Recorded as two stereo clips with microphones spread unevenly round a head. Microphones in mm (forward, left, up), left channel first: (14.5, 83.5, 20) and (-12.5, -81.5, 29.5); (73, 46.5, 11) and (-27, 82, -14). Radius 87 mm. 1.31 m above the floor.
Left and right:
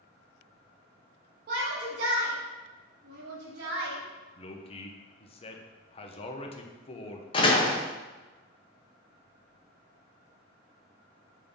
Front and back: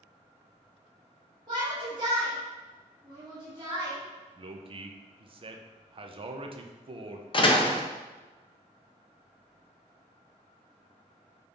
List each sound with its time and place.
1.5 s a shout: 130° right, 1.7 m
4.4 s a man speaking: 135° left, 0.9 m
7.3 s a door slam: 20° left, 1.1 m